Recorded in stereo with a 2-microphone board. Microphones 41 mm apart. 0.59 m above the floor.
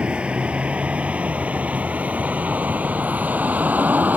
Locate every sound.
0.0 s a vehicle: 25° right (ahead or behind); by 4.2 s 40° right (ahead or behind)